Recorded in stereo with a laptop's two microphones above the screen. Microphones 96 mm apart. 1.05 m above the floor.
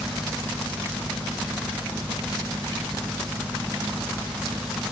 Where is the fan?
30° right (ahead or behind).